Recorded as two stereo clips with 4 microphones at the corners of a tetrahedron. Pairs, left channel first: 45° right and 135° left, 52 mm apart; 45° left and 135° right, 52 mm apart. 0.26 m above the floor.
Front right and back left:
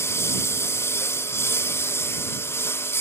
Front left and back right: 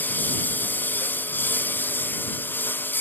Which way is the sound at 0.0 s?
10° right.